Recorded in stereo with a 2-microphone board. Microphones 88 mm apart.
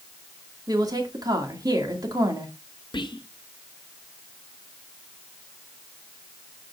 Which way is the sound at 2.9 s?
65° left (ahead or behind).